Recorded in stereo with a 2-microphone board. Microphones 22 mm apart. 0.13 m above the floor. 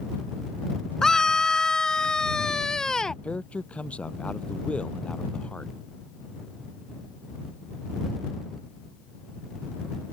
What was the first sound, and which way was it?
A scream, 25° left (ahead or behind).